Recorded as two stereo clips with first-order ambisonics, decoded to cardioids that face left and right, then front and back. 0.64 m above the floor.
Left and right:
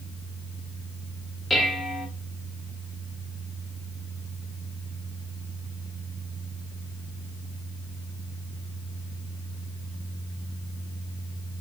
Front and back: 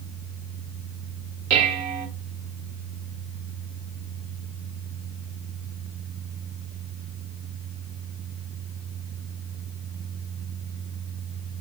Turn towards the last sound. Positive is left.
turn(degrees=180)